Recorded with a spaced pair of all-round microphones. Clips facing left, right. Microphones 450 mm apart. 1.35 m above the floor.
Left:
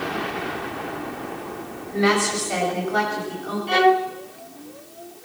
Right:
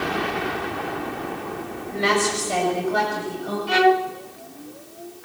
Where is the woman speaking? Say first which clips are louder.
Left 2 dB; 50° right (ahead or behind), 7 m; by 3.6 s 55° right (ahead or behind), 8 m.